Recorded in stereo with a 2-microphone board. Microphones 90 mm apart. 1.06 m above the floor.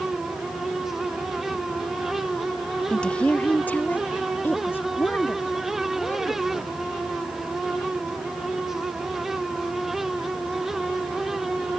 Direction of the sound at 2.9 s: 10° left (ahead or behind).